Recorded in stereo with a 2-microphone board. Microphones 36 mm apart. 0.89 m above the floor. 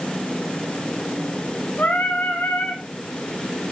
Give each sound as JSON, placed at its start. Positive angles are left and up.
{"t": 1.8, "sound": "singing", "side_deg": 65, "distance_m": 3.5}